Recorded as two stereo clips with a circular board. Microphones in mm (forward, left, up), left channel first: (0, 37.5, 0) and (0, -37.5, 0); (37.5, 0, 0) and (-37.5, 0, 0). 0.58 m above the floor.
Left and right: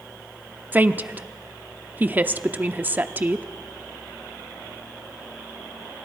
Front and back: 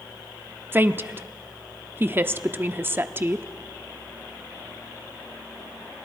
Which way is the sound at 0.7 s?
140° right.